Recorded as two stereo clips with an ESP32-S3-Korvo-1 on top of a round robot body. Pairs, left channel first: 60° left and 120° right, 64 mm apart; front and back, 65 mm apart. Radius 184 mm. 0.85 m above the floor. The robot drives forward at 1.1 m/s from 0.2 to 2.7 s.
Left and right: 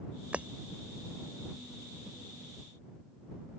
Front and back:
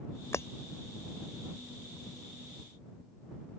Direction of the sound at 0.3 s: 50° right.